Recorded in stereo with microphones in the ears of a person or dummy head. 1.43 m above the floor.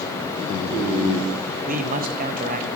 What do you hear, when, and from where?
1.7 s a man speaking: 45° right (ahead or behind), 1.0 m